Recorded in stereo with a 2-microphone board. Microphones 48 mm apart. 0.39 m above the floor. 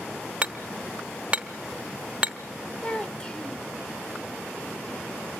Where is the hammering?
20° right (ahead or behind), 1.1 m.